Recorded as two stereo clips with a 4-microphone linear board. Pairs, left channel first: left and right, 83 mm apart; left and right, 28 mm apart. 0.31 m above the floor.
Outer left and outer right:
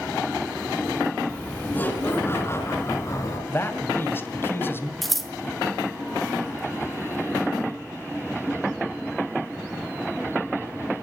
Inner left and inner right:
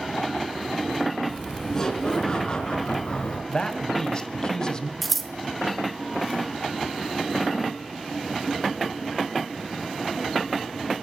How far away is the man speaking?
About 2.0 m.